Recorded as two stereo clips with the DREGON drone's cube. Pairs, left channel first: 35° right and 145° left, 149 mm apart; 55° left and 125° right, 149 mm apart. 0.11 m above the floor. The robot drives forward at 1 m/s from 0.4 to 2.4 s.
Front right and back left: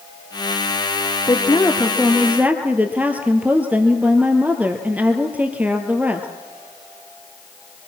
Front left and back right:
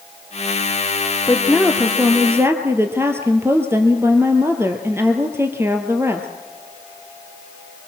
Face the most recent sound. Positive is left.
turn(degrees=-155)